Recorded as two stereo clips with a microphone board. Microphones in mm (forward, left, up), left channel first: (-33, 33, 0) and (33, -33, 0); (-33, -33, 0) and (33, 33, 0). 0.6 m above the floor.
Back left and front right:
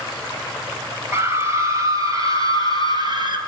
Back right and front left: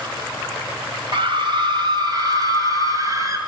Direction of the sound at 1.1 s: 15° left.